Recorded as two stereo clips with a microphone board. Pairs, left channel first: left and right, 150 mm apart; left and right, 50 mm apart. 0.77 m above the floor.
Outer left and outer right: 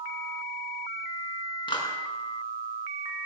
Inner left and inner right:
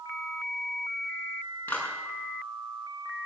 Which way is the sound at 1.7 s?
30° left (ahead or behind).